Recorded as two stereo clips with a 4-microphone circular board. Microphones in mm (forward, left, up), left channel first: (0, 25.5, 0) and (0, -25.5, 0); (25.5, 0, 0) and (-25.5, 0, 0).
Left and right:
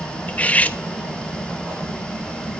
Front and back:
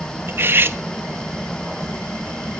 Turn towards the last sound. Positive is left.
turn(degrees=145)